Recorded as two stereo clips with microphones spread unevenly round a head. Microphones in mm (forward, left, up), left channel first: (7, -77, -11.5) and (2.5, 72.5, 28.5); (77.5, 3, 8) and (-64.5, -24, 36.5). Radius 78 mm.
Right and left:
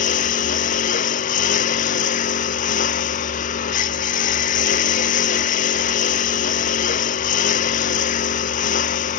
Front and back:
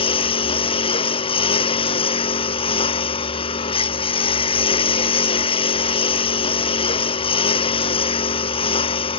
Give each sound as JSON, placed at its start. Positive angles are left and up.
{"t": 0.0, "sound": "a lawn mower", "azimuth_deg": -45}